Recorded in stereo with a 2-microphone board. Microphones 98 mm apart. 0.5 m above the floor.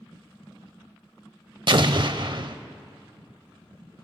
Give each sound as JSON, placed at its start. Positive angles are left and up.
{"t": 1.7, "sound": "an explosion", "side_deg": -55, "distance_m": 0.6}